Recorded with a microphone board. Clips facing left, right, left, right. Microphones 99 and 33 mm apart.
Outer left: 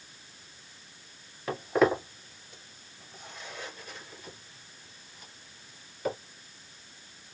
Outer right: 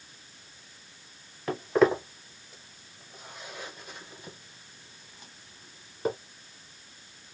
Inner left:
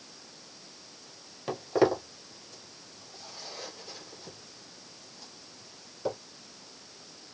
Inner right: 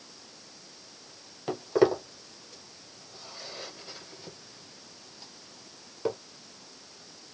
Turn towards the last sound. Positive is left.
turn(degrees=-30)  # may be behind; listen again after turning